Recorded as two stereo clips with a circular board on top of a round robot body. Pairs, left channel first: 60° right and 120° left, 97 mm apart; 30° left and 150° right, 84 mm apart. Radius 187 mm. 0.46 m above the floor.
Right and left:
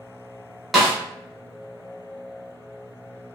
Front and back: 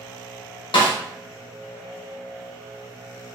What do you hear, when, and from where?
0.7 s a snare drum: 30° left, 1.1 m